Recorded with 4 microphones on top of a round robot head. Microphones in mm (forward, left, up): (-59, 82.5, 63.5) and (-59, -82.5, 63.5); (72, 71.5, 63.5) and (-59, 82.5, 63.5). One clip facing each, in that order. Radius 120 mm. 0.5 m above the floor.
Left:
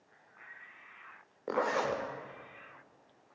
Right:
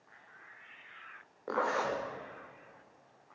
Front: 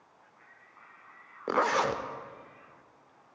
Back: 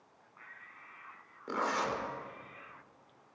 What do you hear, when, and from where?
1.5 s a zipper: 15° left, 0.9 m